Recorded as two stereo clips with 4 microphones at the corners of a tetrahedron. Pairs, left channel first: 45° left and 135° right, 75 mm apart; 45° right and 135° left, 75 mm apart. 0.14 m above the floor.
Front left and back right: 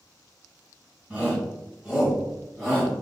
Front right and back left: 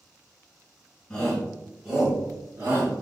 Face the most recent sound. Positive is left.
turn(degrees=135)